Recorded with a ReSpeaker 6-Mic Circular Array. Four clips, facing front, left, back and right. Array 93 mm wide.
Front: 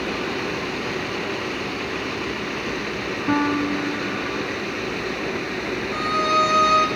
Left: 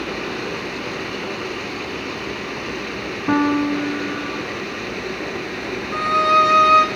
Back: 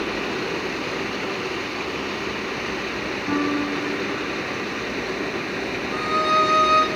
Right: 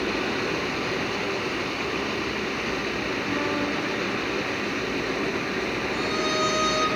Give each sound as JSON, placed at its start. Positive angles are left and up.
{"t": 3.3, "sound": "a piano", "azimuth_deg": 65, "distance_m": 2.0}
{"t": 5.9, "sound": "a violin", "azimuth_deg": 85, "distance_m": 2.0}